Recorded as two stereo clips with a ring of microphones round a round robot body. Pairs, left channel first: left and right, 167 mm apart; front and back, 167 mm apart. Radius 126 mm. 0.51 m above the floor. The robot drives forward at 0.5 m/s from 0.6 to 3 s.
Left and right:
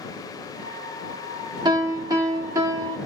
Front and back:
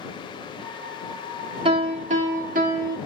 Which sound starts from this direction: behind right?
A piano, at 1.6 s.